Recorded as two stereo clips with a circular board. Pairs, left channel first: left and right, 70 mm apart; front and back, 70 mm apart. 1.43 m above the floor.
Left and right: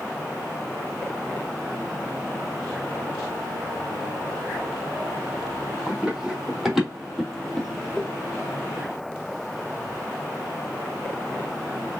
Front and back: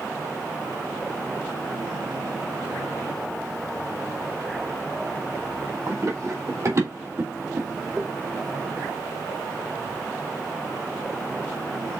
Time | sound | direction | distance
5.9 | running footsteps | 165° right | 2.5 m